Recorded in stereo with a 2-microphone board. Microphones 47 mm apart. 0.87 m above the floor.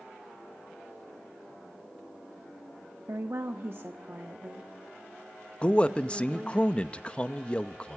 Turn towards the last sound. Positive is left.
turn(degrees=25)  # may be behind; listen again after turning